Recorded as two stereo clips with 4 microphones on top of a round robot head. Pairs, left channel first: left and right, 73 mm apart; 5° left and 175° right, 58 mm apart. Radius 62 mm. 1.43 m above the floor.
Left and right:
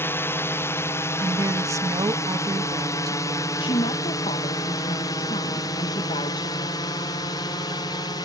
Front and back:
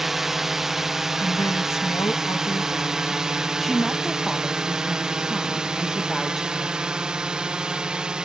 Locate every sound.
0.0 s a drone: 105° left; by 8.2 s 110° left
1.2 s a woman speaking: 45° right
3.6 s a woman speaking: 95° left